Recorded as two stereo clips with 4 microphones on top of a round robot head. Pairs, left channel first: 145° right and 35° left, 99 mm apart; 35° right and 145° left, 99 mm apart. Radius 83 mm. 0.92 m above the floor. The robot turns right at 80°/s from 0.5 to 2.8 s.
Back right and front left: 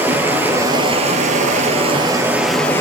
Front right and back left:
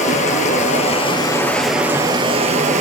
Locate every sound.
0.0 s running water: 40° right, 2.5 m; by 2.8 s 145° left, 2.5 m